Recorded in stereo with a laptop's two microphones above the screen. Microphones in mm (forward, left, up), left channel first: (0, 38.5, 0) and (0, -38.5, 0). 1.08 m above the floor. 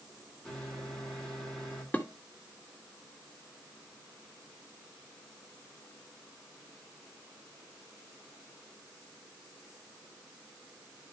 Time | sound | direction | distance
0.5 | a microwave | 5° left (ahead or behind) | 3 m
1.9 | dishes clattering | 25° left (ahead or behind) | 1.9 m